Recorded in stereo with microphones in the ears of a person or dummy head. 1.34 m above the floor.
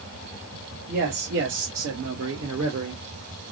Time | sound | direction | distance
0.9 | a man speaking | 50° right (ahead or behind) | 0.9 m